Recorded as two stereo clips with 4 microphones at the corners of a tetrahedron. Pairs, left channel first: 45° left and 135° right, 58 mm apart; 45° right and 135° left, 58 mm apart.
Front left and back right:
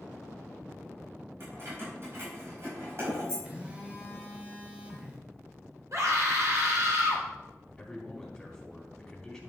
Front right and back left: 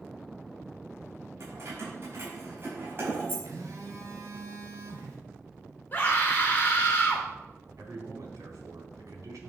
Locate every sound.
1.4 s keys jangling: 175° left, 5 m; by 3.4 s 175° right, 5 m
3.5 s a phone buzzing: 155° left, 2 m
5.9 s a scream: 100° right, 3 m
7.8 s a man speaking: 125° left, 3.5 m